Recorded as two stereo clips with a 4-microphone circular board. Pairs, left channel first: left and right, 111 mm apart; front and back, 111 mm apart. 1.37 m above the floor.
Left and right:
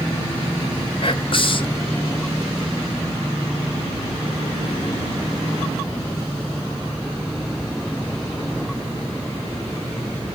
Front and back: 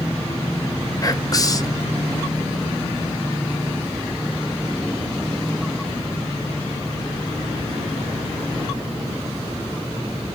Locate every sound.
1.0 s whispering: 55° left, 0.6 m